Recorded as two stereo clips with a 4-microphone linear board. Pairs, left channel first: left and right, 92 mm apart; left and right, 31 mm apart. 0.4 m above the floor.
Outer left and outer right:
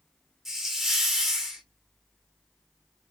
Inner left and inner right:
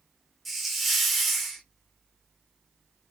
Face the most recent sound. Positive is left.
turn(degrees=-5)  # may be behind; listen again after turning